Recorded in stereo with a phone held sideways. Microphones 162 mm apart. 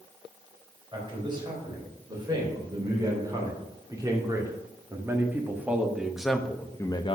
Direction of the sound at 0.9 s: 30° right (ahead or behind).